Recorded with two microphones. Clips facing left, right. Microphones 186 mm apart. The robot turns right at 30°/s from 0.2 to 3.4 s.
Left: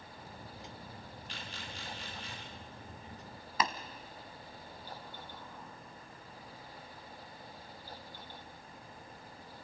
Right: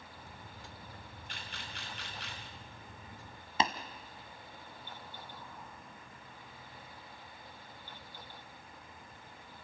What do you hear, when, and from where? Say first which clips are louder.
1.3 s a camera shutter: left 1 dB; 50° right (ahead or behind), 5.5 m; by 2.4 s 85° right, 5.5 m
3.6 s tapping: right 2 dB; 25° right (ahead or behind), 1.4 m